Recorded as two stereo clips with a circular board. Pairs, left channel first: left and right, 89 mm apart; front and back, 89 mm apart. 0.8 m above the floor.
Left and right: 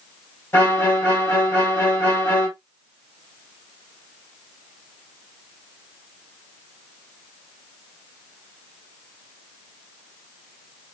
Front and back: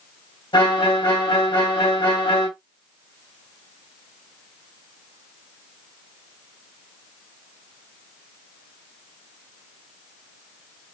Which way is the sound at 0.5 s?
20° left.